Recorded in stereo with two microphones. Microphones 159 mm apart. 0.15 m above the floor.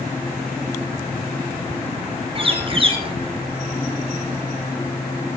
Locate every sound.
2.4 s a bird: 35° right (ahead or behind), 4.5 m